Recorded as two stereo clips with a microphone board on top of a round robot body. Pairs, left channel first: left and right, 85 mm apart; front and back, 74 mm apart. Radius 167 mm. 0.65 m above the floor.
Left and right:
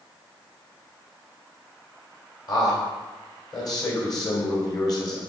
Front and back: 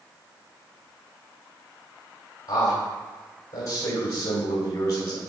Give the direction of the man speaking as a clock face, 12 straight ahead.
10 o'clock.